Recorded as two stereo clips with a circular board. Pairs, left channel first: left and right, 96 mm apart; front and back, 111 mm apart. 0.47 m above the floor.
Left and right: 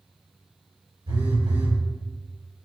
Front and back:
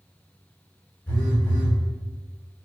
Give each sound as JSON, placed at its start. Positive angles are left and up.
{"t": 1.1, "sound": "a phone buzzing", "azimuth_deg": -75, "distance_m": 1.8}